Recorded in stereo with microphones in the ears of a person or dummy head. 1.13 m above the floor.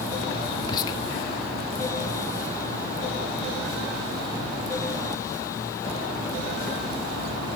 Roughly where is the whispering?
Left.